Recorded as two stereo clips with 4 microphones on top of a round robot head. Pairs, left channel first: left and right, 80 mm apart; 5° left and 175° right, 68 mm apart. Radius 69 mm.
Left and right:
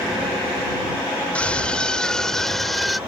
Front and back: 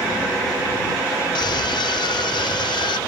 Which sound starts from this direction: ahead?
A scream, at 1.4 s.